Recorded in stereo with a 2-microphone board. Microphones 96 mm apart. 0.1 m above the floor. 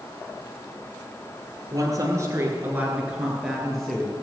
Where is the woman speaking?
35° right (ahead or behind), 2 m; by 4.1 s 5° left (ahead or behind), 2.5 m.